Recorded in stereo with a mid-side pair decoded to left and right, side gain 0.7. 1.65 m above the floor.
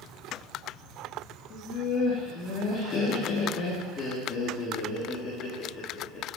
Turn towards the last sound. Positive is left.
turn(degrees=40)